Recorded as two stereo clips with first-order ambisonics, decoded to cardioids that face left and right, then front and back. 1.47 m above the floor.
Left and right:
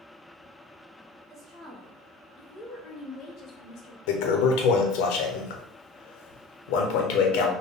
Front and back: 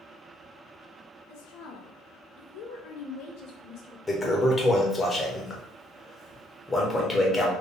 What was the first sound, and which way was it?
A woman speaking, straight ahead.